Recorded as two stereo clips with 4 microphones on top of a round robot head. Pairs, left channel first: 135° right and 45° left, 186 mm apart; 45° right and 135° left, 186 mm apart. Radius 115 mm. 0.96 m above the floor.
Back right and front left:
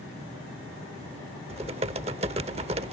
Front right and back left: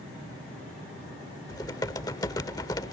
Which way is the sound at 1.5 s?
15° left.